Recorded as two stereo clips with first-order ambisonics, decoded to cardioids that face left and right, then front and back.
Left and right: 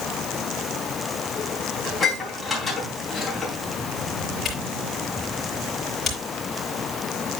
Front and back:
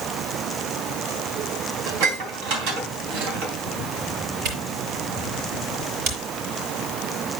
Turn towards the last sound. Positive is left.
turn(degrees=165)